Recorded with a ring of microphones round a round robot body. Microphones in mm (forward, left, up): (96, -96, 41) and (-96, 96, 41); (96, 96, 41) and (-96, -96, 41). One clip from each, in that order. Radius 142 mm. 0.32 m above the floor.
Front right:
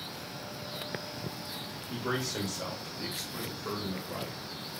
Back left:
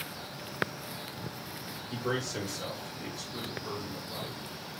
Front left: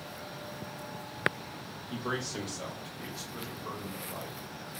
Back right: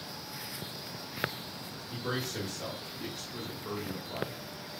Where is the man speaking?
50° left, 1.3 m; by 4.4 s 50° right, 1.7 m.